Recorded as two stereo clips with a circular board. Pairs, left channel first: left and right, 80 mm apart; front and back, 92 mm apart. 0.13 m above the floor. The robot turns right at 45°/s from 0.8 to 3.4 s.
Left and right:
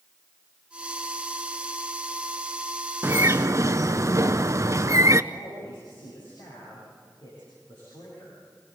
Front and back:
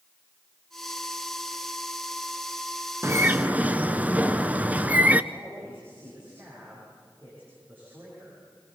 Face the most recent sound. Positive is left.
turn(degrees=110)